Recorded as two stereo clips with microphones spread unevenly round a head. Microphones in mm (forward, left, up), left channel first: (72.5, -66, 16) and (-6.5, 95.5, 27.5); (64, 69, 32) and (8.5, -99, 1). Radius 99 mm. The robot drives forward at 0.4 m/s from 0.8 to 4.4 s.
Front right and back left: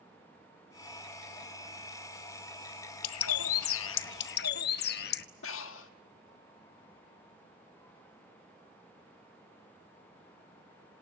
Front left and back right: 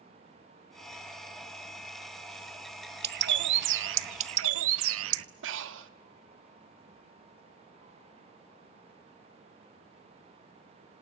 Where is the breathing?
95° right, 1.4 m.